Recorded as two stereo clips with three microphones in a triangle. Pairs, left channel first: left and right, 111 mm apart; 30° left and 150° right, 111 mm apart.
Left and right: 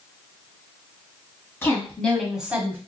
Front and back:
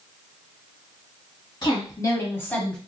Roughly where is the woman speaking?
Ahead left.